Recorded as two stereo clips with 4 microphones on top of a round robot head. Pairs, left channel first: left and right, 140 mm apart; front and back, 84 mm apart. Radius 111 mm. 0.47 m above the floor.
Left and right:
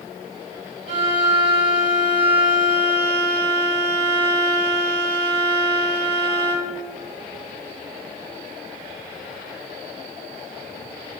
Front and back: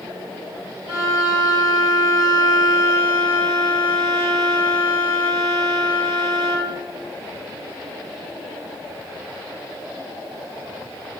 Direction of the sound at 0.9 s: 135° right.